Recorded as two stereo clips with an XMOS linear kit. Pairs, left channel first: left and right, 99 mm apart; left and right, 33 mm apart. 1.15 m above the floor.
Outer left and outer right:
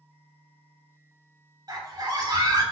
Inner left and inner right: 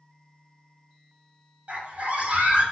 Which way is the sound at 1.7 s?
45° right (ahead or behind).